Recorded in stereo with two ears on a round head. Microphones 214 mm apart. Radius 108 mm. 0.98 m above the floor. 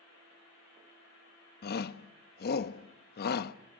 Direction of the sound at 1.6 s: 45° left (ahead or behind).